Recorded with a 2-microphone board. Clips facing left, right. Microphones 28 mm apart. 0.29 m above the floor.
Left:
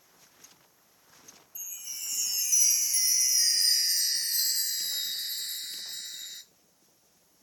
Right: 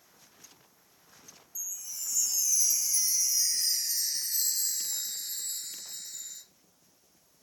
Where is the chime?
55° left (ahead or behind), 1.6 m.